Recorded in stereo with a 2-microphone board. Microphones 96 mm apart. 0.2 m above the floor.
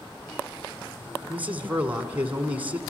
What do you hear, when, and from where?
1.3 s a man speaking: 15° right (ahead or behind), 1.8 m